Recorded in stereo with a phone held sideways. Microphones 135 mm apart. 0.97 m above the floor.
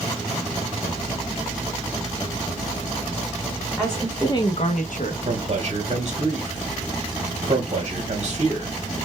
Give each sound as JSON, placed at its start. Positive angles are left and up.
{"t": 3.8, "sound": "a woman speaking", "side_deg": 0, "distance_m": 1.2}
{"t": 5.2, "sound": "a man speaking", "side_deg": -45, "distance_m": 1.1}